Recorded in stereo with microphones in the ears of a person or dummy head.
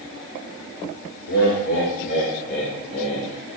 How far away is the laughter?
About 1.9 m.